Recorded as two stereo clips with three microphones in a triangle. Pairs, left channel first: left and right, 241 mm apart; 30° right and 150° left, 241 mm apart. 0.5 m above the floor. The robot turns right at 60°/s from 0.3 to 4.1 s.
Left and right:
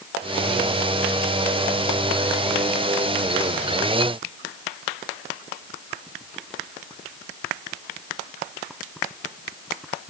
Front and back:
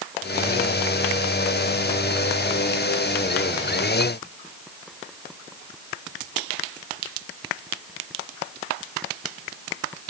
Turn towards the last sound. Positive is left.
No sound to turn to.